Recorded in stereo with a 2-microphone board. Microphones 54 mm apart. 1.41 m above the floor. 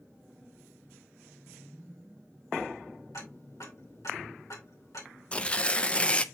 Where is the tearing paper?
20° left (ahead or behind), 0.5 m.